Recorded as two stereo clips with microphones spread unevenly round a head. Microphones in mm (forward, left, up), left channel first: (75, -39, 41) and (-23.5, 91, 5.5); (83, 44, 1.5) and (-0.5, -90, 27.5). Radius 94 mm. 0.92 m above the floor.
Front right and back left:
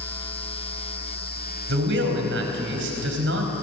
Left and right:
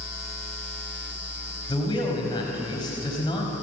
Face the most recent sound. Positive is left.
turn(degrees=125)